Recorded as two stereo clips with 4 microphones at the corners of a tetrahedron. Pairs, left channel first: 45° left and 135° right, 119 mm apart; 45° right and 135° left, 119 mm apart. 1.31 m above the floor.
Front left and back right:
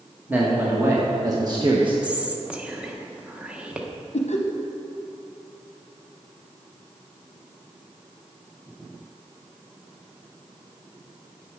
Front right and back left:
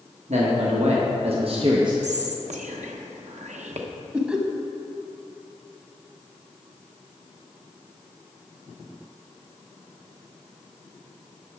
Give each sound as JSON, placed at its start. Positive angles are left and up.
{"t": 0.3, "sound": "a man speaking", "azimuth_deg": 150, "distance_m": 1.3}
{"t": 2.0, "sound": "whispering", "azimuth_deg": 145, "distance_m": 1.0}
{"t": 4.1, "sound": "laughter", "azimuth_deg": 60, "distance_m": 0.6}